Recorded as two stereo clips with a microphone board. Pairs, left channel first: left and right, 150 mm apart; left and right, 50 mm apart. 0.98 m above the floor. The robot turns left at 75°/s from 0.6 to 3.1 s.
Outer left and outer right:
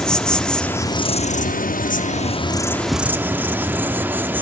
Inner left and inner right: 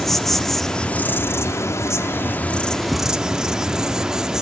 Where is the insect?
175° left, 0.7 m; by 4.4 s 15° right, 0.7 m.